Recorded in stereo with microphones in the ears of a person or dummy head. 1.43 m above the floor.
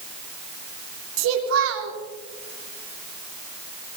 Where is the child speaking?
85° right, 3 m.